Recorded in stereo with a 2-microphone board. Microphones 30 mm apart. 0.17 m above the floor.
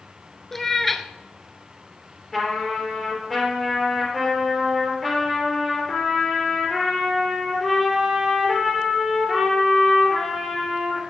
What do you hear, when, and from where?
0.5 s a cat meowing: 10° left (ahead or behind), 0.6 m
2.3 s a trumpet: 5° left (ahead or behind), 3 m